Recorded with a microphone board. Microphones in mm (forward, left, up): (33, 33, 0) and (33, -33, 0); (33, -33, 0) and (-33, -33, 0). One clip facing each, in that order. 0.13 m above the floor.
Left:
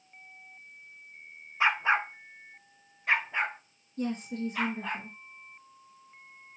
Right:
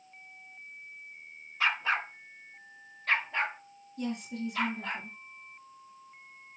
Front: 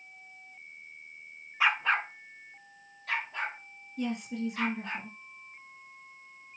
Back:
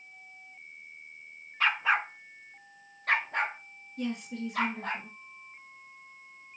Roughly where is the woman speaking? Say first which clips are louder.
Left 2 dB, front 1 dB; left.